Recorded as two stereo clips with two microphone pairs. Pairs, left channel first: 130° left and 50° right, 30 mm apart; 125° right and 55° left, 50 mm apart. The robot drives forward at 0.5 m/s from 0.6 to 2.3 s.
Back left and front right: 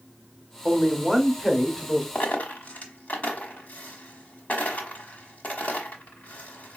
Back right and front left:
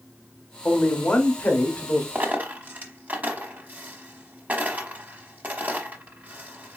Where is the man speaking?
105° right, 0.8 m; by 2.0 s 160° right, 1.1 m.